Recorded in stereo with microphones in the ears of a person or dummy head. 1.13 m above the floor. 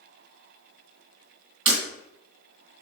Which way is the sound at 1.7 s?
30° right (ahead or behind).